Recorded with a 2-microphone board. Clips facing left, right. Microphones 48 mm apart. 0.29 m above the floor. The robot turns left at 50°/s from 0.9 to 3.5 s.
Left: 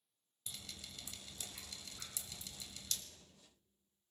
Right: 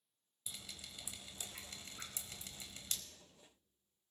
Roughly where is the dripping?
Centre.